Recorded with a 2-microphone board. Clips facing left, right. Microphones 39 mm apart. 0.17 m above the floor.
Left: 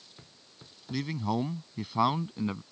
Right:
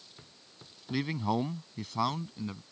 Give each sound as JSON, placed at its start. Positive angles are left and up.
{"t": 0.9, "sound": "a man speaking", "side_deg": -15}